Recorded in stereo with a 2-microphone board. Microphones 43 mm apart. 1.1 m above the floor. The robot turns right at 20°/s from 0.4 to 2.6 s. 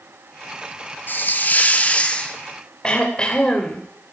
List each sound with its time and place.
1.1 s a hiss: 45° left (ahead or behind), 1.5 m; by 2.4 s 20° left (ahead or behind), 1.5 m
2.8 s throat clearing: 20° left (ahead or behind), 2.5 m